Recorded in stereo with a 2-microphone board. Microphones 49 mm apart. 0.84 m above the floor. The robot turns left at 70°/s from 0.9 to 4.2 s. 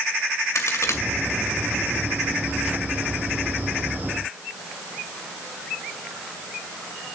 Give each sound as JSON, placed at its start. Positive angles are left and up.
{"t": 0.6, "sound": "a crack", "side_deg": 80, "distance_m": 2.0}